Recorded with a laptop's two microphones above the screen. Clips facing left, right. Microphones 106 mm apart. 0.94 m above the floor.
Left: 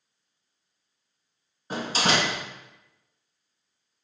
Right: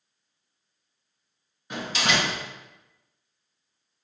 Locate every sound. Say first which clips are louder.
1.7 s a door slam: left 2 dB; 35° left (ahead or behind), 0.7 m